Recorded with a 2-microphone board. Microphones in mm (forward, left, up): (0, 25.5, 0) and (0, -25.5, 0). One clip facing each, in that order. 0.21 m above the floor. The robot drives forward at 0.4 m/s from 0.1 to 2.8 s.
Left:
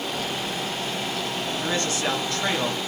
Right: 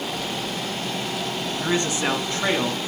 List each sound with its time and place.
1.6 s a man speaking: 20° right (ahead or behind), 2.5 m; by 2.8 s 15° right (ahead or behind), 3 m